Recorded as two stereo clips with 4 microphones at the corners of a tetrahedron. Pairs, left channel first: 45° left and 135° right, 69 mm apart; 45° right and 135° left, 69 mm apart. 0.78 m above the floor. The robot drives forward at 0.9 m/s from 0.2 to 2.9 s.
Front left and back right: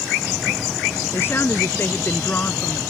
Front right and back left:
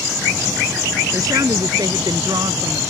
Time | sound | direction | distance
1.1 | a woman speaking | 100° left | ?